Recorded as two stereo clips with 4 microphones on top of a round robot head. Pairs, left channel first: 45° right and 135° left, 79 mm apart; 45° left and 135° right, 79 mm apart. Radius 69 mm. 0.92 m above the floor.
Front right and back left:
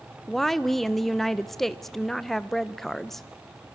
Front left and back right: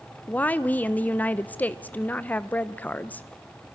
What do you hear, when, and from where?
0.3 s a woman speaking: 35° left, 0.7 m